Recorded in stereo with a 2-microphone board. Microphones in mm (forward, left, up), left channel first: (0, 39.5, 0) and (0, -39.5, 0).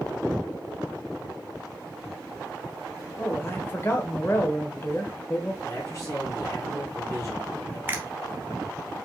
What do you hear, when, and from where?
3.2 s a man speaking: 30° left (ahead or behind), 1.1 m
5.6 s a man speaking: 35° left (ahead or behind), 3 m
7.9 s a finger snap: 25° right (ahead or behind), 0.9 m